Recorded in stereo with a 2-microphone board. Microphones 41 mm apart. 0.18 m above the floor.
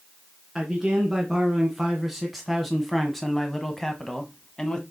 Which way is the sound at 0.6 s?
10° right (ahead or behind).